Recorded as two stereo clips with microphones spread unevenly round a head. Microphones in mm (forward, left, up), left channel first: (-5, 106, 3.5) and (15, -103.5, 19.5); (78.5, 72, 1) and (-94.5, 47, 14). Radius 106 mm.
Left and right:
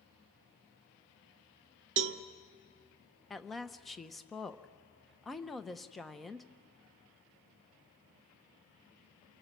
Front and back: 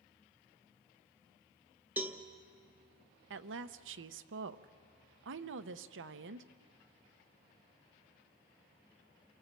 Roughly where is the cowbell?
Right.